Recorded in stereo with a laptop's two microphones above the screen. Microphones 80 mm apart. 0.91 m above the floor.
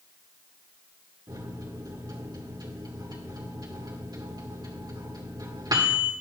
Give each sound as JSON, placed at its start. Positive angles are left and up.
{"t": 1.3, "sound": "a microwave", "side_deg": -55, "distance_m": 1.8}